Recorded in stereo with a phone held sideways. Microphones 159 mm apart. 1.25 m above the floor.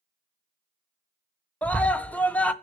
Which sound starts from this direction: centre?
A scream, at 1.6 s.